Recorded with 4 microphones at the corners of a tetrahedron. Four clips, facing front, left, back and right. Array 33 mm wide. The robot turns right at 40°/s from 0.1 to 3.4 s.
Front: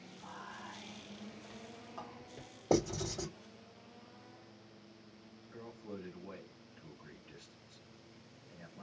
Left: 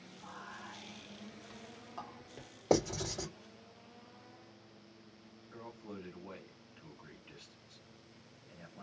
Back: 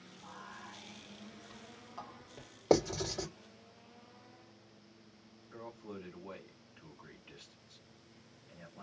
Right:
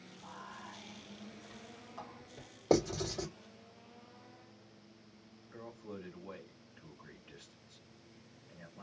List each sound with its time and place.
0.2 s whispering: straight ahead, 1.3 m; by 2.5 s 90° left, 1.3 m
2.7 s writing: straight behind, 1.6 m; by 3.3 s 155° right, 1.6 m
5.5 s a man speaking: 145° left, 1.5 m